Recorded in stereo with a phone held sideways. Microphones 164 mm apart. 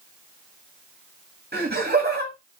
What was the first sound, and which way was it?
Laughter, 80° right.